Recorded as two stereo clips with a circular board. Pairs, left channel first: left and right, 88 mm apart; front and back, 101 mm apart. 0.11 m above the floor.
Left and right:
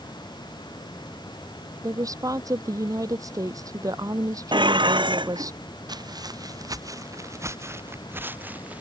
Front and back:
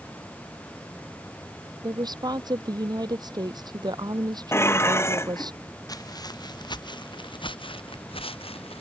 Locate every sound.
1.8 s a woman speaking: 135° right
4.5 s dishes clattering: 65° right
5.9 s footsteps: 50° right; by 8.8 s 15° right